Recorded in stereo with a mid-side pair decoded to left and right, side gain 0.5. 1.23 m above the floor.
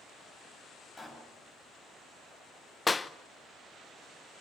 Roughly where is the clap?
Ahead.